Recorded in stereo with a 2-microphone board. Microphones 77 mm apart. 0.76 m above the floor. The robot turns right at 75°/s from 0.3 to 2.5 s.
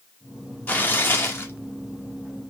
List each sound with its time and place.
0.7 s tearing paper: 40° left, 1.1 m; by 1.5 s 105° left, 1.1 m